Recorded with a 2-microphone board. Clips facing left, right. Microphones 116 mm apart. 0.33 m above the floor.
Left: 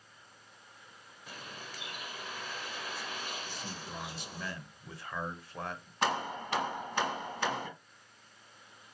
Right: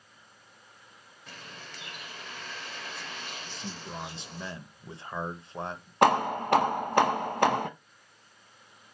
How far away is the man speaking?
About 0.9 m.